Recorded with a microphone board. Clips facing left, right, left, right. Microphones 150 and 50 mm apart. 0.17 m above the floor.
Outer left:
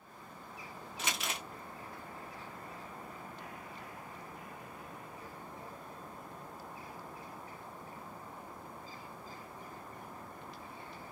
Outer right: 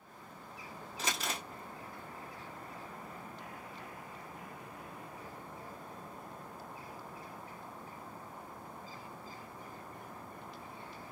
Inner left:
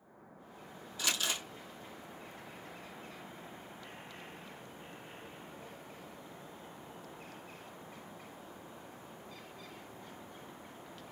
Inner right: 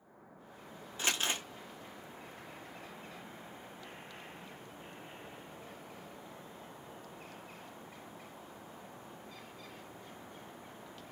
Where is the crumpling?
35° right (ahead or behind), 1.7 m.